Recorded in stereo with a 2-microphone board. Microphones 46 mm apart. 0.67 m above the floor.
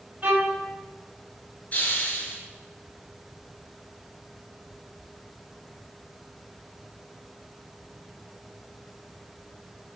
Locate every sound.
0.2 s a violin: 30° right (ahead or behind), 4.5 m
1.7 s a hiss: 40° left (ahead or behind), 5.5 m